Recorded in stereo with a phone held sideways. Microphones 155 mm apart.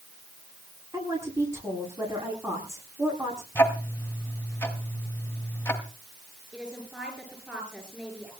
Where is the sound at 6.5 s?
5° right (ahead or behind), 9.5 m.